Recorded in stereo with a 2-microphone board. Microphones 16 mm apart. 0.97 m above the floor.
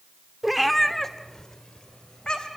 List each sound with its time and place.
0.4 s a cat meowing: 10° right (ahead or behind), 1.3 m; by 2.6 s 60° left (ahead or behind), 3 m